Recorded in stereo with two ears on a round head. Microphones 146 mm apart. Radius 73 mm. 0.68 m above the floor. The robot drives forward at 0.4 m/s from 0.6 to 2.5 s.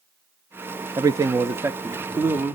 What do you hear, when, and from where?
1.0 s a man speaking: 20° right (ahead or behind), 0.5 m; by 2.6 s 10° right (ahead or behind), 0.9 m